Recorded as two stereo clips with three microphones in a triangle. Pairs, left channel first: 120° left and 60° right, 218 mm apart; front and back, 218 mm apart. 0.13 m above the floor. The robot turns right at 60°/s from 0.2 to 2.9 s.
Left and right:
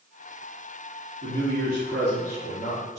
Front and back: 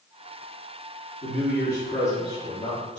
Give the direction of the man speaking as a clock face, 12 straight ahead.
12 o'clock.